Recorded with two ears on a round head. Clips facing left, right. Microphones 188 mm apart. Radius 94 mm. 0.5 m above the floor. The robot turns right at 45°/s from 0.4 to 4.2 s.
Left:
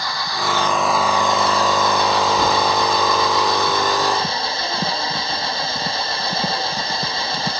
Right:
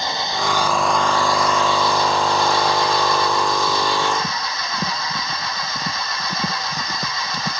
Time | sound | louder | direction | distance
0.0 | an engine running | right 2 dB | 20° right | ?